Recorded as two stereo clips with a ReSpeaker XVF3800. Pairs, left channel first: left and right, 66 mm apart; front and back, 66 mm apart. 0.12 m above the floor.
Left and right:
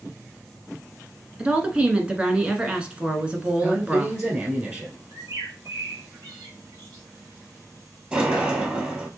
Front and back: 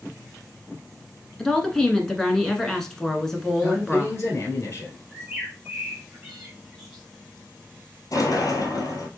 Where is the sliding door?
20° right, 1.4 m.